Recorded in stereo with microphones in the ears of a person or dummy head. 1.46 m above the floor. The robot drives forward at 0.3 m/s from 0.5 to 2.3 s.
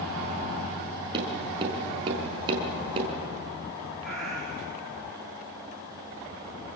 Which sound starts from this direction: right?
Tapping, at 1.1 s.